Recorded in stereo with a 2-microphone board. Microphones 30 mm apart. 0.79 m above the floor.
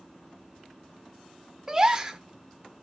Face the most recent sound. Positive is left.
turn(degrees=-25)  # may be behind; listen again after turning